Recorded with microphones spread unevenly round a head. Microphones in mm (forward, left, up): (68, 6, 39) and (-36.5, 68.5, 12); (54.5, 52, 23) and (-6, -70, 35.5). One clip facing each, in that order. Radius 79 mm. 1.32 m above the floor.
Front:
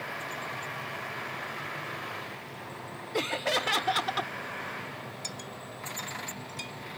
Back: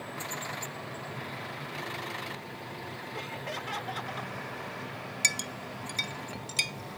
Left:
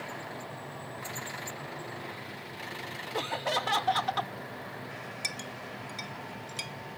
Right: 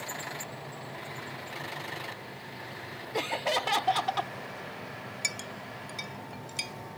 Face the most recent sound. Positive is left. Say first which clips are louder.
# back 2 dB, even
turn(degrees=160)